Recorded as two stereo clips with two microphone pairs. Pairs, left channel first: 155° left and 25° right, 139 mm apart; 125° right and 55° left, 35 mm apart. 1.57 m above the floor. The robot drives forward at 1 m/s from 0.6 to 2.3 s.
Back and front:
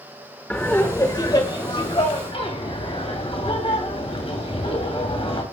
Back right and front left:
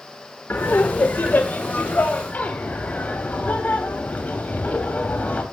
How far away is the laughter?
About 1.2 m.